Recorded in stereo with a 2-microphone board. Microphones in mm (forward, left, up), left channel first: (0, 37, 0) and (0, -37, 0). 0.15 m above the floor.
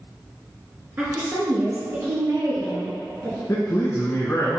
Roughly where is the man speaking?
Left.